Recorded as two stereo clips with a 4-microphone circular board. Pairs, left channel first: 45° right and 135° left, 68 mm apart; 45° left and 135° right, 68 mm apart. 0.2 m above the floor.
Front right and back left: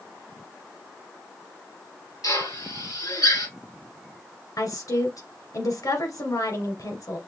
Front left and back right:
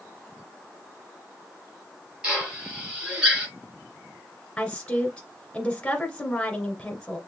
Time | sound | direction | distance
2.2 | a drill | 60° right | 4.5 m
4.6 | a woman speaking | 30° right | 2 m